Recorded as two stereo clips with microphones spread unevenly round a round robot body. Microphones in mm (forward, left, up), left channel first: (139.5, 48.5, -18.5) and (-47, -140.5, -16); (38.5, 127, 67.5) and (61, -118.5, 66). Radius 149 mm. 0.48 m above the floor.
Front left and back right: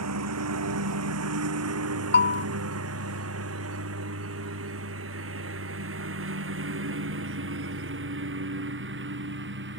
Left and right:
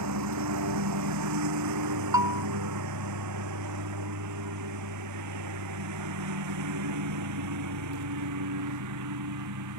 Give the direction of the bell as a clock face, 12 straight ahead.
12 o'clock.